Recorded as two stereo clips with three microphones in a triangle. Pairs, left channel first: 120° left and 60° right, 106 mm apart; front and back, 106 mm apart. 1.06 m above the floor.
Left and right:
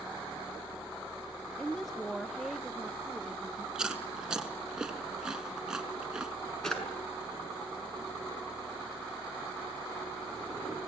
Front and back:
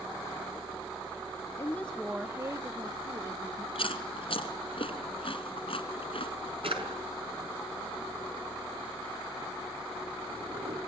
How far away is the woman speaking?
About 0.8 m.